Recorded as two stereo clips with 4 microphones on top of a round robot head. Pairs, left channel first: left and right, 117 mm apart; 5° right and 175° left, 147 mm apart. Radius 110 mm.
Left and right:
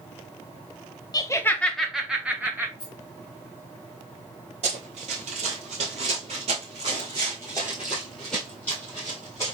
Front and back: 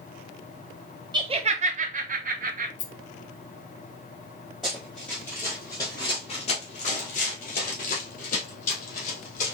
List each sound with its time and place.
1.1 s laughter: 130° left, 0.6 m; by 2.7 s 160° right, 1.3 m
2.8 s a rattle: 25° left, 0.8 m
4.6 s running footsteps: 95° right, 1.8 m; by 9.5 s 20° left, 2 m